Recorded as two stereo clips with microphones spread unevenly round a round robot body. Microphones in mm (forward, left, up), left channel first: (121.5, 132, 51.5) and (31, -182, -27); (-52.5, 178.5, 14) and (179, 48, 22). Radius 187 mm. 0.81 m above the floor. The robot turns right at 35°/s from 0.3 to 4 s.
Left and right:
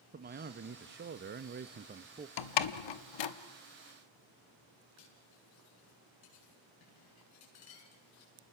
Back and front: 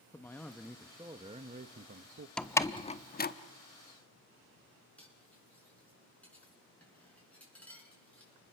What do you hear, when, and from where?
0.1 s a man speaking: 130° right, 0.6 m; by 2.3 s 65° right, 0.6 m
2.4 s a door slam: 65° left, 1.1 m; by 3.3 s 95° left, 1.1 m
5.0 s cutlery clinking: 65° left, 7 m